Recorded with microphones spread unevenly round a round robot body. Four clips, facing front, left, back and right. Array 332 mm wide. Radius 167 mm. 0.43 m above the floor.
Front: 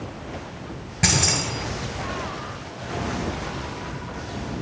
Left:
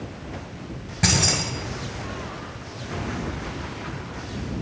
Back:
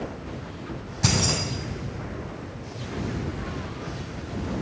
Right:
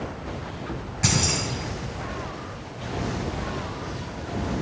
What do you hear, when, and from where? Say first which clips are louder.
1.0 s keys jangling: left 2 dB, front 1 dB; 45° left, 6.5 m